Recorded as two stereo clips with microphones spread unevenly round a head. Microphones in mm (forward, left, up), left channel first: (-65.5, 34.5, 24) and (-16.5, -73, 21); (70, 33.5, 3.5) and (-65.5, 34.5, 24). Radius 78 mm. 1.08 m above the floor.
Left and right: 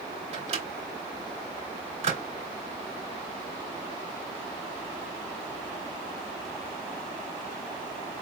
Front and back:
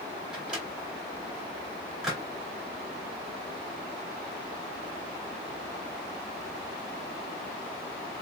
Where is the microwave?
95° right, 2 m.